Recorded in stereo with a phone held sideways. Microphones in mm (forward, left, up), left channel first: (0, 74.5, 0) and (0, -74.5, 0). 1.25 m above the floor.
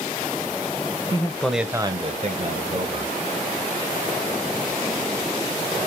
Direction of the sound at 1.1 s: 25° left (ahead or behind).